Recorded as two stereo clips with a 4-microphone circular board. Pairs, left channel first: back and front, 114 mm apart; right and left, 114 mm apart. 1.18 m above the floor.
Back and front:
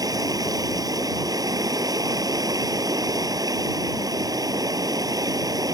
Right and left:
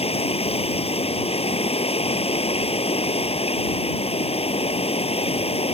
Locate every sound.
0.0 s running water: 60° right